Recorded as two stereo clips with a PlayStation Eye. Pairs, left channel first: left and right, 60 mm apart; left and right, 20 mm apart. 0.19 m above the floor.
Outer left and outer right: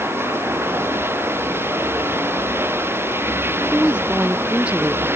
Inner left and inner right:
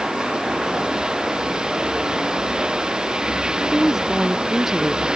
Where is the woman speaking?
20° right (ahead or behind).